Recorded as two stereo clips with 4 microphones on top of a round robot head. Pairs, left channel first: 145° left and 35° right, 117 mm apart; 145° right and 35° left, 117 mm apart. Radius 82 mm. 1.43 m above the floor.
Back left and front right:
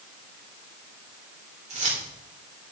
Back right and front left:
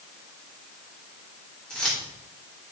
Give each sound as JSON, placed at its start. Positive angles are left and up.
{"t": 1.7, "sound": "keys jangling", "azimuth_deg": -60, "distance_m": 4.0}